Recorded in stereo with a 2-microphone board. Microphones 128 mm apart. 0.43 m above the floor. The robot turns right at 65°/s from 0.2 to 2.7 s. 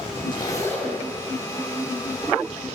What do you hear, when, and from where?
0.3 s a zipper: 135° left, 2.5 m; by 1.0 s straight behind, 2.5 m